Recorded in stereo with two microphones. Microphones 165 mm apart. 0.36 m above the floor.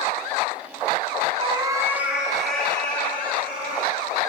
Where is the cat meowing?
40° right (ahead or behind), 0.9 m; by 3.9 s 15° left (ahead or behind), 3.5 m.